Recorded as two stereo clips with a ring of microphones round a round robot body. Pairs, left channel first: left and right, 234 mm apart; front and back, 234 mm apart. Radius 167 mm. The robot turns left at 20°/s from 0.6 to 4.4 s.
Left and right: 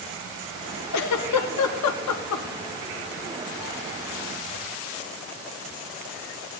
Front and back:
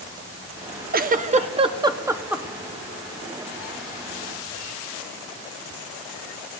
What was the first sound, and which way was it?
A giggle, 125° left.